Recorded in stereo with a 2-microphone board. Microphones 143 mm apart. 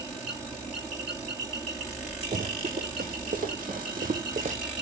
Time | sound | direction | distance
2.3 | running footsteps | 85° right | 4.5 m